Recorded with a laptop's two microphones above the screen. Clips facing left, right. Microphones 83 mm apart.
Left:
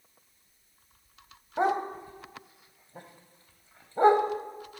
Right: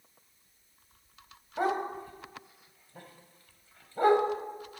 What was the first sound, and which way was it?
A dog barking, 20° left (ahead or behind).